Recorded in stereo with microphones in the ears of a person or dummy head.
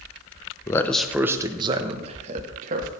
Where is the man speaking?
20° left (ahead or behind), 0.9 m; by 2.9 s 50° right (ahead or behind), 2 m.